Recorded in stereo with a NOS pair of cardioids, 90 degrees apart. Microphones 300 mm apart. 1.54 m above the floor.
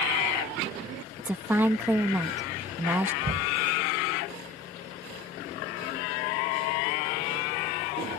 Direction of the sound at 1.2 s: 5° right.